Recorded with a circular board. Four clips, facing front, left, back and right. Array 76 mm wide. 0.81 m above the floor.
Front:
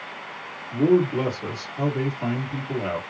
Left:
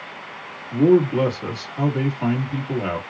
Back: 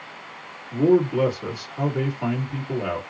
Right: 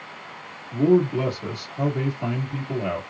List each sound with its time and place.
0.7 s a man speaking: 95° left, 1.6 m